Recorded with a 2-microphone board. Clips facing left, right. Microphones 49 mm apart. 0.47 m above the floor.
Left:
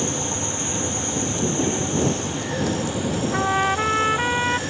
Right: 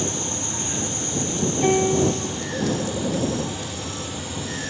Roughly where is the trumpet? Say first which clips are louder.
Left 9 dB; left.